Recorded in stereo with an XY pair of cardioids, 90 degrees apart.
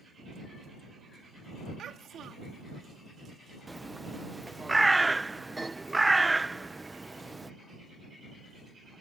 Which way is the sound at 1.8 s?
70° right.